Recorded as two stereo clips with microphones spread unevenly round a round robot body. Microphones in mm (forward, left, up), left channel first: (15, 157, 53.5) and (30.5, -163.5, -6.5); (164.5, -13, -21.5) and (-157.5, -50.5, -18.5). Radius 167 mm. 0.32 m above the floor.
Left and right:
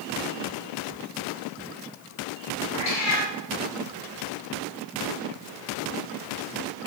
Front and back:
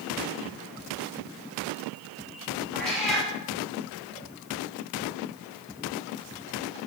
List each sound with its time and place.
2.7 s a cat meowing: 95° left, 4 m